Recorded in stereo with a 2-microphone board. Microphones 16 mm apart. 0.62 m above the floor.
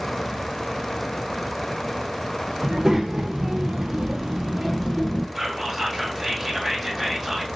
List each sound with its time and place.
2.6 s a child speaking: 45° right (ahead or behind), 1.6 m; by 5.2 s 10° right (ahead or behind), 1.1 m
5.3 s whispering: 20° right (ahead or behind), 1.8 m